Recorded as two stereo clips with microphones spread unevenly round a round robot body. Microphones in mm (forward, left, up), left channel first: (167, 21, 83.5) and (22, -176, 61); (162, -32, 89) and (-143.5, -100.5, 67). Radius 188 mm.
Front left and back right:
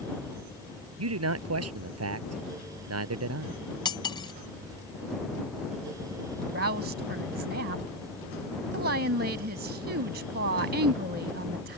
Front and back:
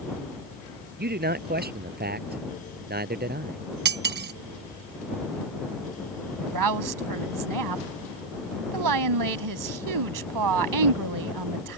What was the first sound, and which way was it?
A man speaking, 105° right.